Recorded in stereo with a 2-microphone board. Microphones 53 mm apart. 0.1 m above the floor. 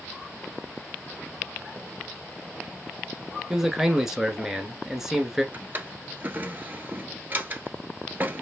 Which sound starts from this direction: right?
A drawer, at 5.5 s.